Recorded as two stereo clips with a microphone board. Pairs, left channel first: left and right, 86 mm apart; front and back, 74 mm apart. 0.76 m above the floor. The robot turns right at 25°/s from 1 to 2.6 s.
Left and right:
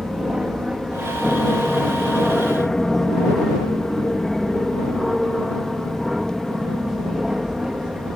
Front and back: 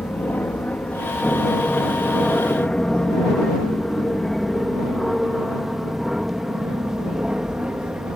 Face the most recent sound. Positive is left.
turn(degrees=-150)